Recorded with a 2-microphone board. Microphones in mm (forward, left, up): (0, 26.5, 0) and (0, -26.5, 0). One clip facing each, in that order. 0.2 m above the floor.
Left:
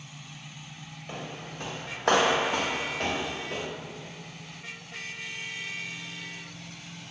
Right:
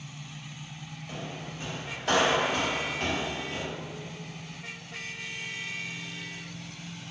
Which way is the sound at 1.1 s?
35° left (ahead or behind).